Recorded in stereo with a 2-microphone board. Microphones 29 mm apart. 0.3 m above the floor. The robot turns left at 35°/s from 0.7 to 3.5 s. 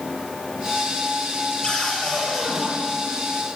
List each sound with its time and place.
1.6 s a cupboard door: 25° left, 6 m; by 2.7 s 15° right, 6 m